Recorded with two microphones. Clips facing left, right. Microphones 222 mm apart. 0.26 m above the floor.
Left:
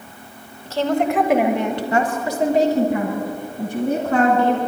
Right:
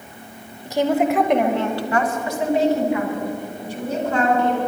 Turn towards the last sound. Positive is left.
turn(degrees=60)  # may be behind; listen again after turning